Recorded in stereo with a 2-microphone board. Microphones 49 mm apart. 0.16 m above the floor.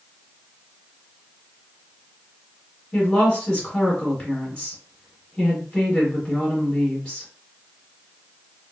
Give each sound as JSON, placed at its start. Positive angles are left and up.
{"t": 2.9, "sound": "a woman speaking", "side_deg": 15, "distance_m": 1.5}